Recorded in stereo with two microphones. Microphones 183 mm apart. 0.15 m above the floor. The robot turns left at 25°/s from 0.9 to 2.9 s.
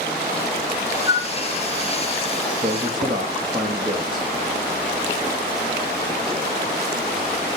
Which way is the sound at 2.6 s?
55° right (ahead or behind).